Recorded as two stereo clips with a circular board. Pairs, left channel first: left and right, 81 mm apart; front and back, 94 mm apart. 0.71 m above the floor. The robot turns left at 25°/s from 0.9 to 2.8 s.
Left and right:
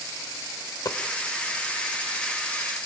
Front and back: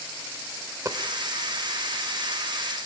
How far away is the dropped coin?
About 1.2 m.